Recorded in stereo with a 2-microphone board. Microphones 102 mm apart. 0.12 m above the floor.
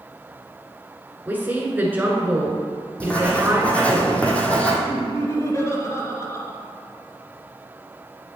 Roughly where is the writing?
Centre.